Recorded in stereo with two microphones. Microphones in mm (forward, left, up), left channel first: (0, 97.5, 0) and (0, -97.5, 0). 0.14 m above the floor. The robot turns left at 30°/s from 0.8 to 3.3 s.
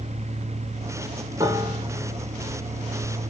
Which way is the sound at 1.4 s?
20° right (ahead or behind).